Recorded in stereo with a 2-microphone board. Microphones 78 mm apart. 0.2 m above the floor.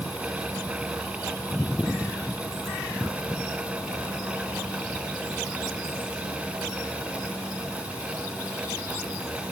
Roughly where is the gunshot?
No gunshot in this recording.